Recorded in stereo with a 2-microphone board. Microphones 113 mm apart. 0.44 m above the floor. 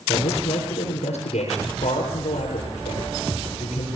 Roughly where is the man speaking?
Left.